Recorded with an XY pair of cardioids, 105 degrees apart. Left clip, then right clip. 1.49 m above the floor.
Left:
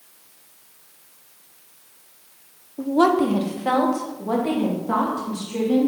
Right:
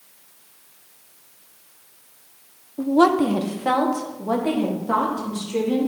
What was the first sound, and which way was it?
A woman speaking, 15° right.